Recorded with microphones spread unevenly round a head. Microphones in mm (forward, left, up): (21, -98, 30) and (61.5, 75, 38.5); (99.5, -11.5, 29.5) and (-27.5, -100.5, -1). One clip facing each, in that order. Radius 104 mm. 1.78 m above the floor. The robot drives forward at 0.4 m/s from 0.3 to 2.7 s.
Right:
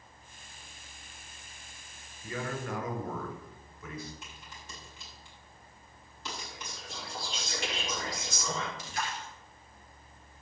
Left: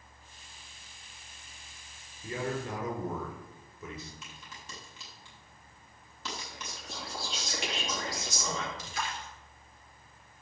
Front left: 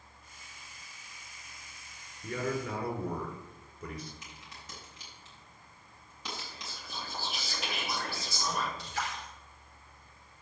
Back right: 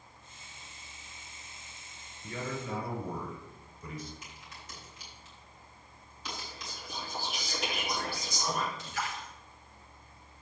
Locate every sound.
2.2 s a man speaking: 10° left, 5 m
4.2 s a crack: 60° left, 6 m
6.3 s whispering: 120° left, 3 m
8.8 s a splash: 95° left, 2.5 m